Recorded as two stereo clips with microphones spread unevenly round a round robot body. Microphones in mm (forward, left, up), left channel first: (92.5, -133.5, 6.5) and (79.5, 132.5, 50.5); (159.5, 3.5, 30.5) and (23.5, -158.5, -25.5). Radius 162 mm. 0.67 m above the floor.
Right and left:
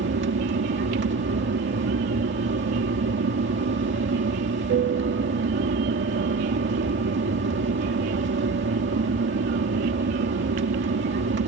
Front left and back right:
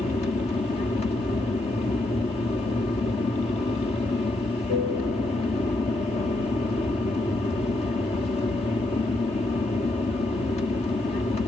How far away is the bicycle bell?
No bicycle bell in this recording.